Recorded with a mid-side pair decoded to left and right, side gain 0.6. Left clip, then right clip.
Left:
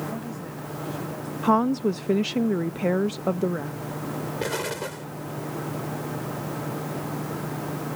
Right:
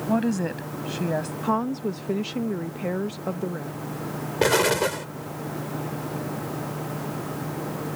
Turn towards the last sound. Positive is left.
turn(degrees=-45)